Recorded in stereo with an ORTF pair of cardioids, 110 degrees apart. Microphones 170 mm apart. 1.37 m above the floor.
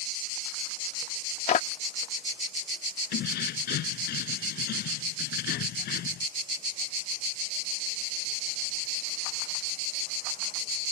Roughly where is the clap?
Ahead left.